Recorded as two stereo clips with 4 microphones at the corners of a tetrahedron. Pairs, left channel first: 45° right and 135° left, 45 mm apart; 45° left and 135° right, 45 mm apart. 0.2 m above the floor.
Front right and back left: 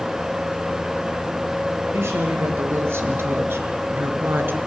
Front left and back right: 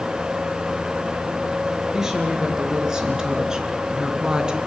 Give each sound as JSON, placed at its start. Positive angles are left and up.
{"t": 1.9, "sound": "a woman speaking", "azimuth_deg": 145, "distance_m": 3.0}